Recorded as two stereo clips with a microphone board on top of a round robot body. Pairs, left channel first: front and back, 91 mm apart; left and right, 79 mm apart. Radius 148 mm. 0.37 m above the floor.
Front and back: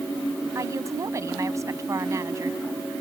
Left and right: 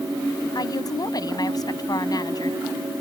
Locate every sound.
0.6 s a woman speaking: 125° left